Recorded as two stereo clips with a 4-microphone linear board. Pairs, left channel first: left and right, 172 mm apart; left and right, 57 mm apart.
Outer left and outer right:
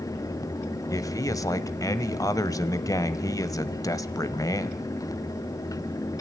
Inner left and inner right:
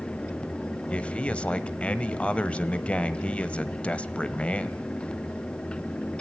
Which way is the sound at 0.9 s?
20° left (ahead or behind).